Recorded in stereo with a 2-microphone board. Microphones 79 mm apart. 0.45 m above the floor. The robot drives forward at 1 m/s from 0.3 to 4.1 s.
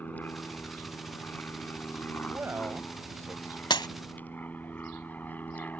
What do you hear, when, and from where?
0.0 s an aircraft: 20° left (ahead or behind)
2.3 s a man speaking: 25° right (ahead or behind); by 3.6 s 40° right (ahead or behind)
3.7 s breaking glass: 75° left (ahead or behind); by 3.9 s 70° left (ahead or behind)